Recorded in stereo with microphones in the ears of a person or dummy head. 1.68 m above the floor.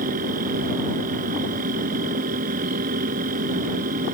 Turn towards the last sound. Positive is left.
turn(degrees=-45)  # may be behind; listen again after turning